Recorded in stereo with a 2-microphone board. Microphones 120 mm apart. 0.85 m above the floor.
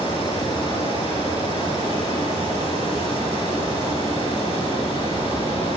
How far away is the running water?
About 7.5 m.